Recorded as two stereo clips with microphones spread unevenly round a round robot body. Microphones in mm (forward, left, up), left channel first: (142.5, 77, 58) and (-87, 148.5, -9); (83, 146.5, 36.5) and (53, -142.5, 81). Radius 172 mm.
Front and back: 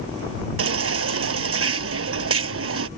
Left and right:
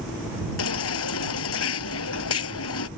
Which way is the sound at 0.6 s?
135° left.